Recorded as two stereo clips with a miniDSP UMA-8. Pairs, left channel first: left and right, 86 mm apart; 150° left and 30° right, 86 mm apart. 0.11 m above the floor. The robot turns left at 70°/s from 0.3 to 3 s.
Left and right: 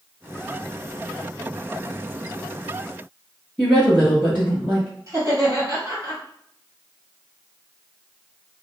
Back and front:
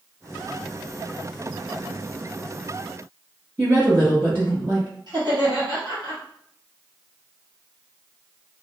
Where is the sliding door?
No sliding door in this recording.